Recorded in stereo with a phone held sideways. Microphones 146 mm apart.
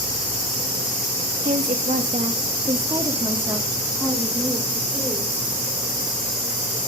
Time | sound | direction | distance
1.4 | a woman speaking | 70° right (ahead or behind) | 2.0 m